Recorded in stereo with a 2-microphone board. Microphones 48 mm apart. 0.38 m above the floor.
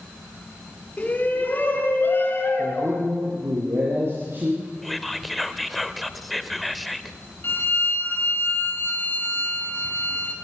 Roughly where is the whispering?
Centre.